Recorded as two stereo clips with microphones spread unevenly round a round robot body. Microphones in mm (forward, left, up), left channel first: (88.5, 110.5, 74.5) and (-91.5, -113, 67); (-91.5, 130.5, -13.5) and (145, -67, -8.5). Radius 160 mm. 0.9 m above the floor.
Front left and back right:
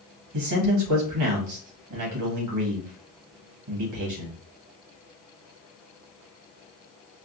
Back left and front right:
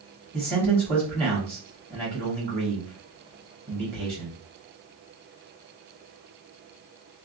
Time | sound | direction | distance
0.3 | a man speaking | 115° right | 1.4 m